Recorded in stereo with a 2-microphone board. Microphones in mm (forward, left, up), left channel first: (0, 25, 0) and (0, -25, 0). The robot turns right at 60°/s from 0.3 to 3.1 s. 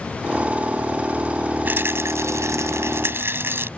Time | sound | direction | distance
1.6 | a rattle | 140° right | ?